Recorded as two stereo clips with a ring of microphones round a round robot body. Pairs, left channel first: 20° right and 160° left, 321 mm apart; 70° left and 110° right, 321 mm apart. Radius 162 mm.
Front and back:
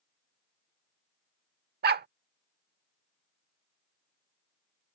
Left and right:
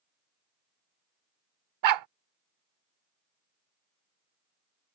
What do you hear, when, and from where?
1.8 s a dog barking: 140° right